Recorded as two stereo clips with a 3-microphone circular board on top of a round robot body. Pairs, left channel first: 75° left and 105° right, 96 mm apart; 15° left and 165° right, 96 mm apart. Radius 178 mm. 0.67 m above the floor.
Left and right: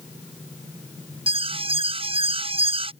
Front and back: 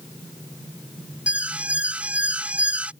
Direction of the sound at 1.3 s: 85° right.